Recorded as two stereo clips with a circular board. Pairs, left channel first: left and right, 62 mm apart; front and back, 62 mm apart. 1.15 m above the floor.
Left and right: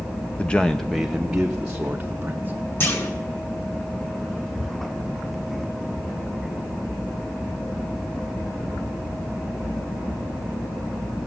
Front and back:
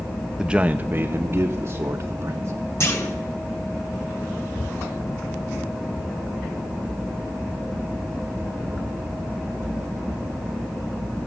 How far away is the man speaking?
About 0.5 m.